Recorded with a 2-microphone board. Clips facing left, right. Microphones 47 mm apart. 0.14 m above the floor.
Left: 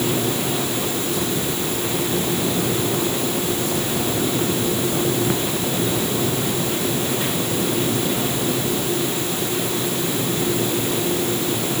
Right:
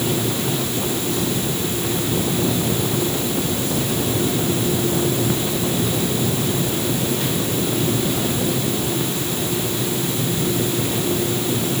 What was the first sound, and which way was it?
Only background noise.